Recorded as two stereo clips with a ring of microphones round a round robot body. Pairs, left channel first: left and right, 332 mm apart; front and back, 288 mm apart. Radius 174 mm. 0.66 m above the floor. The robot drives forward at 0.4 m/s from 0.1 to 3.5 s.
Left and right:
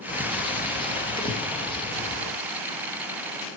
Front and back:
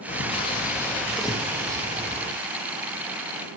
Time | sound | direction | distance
0.1 | a bird | 30° left | 1.2 m